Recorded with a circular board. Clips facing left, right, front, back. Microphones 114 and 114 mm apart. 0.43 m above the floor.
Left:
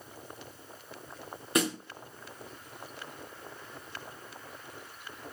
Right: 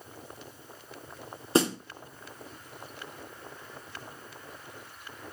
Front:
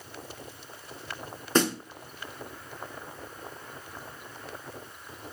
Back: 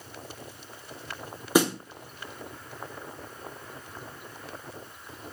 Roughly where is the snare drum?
Right.